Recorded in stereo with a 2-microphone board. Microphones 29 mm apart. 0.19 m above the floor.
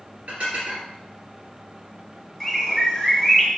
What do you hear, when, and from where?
0.3 s dishes clattering: 60° right (ahead or behind), 2 m
2.4 s a bird: 5° left (ahead or behind), 1.5 m